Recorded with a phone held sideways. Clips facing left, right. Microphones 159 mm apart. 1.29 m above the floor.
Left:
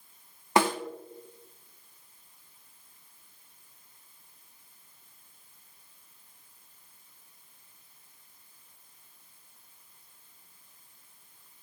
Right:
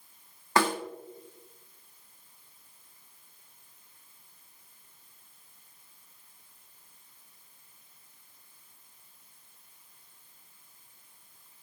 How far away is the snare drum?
About 1.6 m.